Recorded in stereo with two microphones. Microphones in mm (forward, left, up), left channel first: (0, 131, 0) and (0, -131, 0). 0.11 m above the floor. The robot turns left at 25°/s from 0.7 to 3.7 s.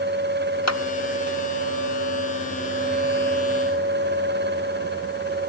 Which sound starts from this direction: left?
A clap, at 0.7 s.